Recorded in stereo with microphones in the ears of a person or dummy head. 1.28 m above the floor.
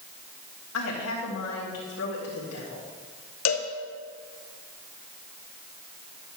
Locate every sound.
0.7 s a woman speaking: 70° left (ahead or behind), 2.5 m
3.5 s a cowbell: 75° left (ahead or behind), 1.0 m